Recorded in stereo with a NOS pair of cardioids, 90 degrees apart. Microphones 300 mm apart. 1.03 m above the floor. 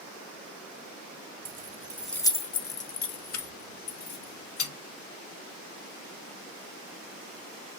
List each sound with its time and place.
1.4 s keys jangling: 35° right, 0.6 m; by 4.7 s 70° left, 1.6 m